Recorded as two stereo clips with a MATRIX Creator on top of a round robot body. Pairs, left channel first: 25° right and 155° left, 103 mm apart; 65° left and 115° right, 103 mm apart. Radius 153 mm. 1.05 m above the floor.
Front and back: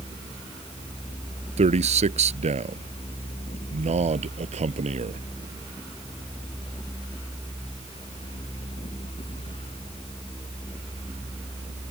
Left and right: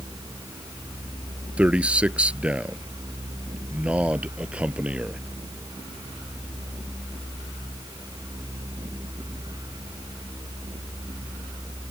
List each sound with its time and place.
1.6 s a man speaking: 170° left